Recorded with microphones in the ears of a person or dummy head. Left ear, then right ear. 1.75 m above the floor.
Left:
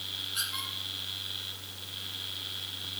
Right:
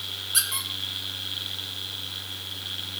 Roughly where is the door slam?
No door slam in this recording.